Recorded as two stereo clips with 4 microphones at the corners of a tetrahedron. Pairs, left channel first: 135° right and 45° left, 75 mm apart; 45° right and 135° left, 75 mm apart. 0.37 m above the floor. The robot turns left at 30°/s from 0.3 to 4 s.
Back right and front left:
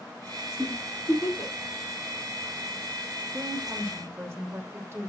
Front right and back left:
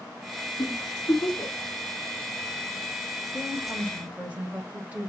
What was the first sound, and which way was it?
A giggle, 55° right.